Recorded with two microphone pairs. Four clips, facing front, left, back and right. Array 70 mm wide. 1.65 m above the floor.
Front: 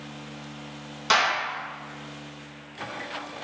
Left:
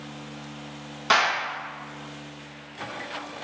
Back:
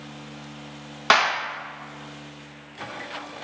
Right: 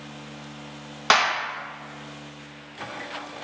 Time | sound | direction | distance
1.1 | a clap | 145° right | 1.2 m